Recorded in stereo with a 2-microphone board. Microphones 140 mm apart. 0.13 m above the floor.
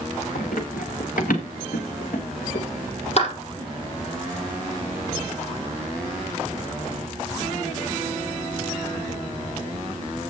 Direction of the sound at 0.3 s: 90° left.